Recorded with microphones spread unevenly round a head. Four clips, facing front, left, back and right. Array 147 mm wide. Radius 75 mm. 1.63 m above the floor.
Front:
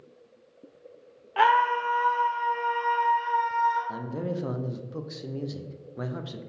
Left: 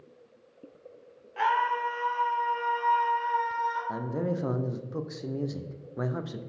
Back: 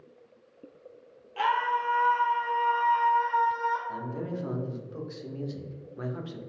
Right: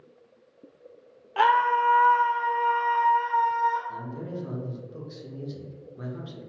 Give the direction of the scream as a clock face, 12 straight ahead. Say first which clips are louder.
Right 5 dB, front 5 dB; 1 o'clock.